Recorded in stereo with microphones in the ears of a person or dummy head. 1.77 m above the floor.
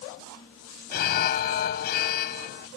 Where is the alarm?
55° left (ahead or behind), 1.1 m.